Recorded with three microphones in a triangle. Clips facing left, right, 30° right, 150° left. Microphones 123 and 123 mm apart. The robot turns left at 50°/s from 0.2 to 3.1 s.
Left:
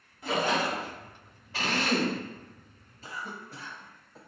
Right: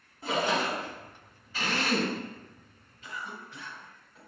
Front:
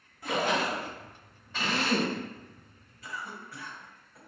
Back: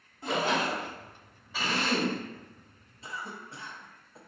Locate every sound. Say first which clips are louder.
0.2 s a splash: left 1 dB, even; 145° right, 1.1 m; by 0.9 s straight behind, 1.1 m
1.5 s a drill: left 1 dB, front 1 dB; 65° left, 0.9 m; by 2.2 s 35° left, 0.9 m
3.0 s a cough: left 1 dB, even; 110° left, 0.5 m; by 4.2 s 105° left, 0.5 m